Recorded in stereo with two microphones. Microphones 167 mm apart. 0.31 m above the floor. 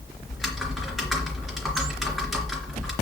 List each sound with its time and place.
0.3 s typing on a keyboard: centre (ahead or behind), 3 m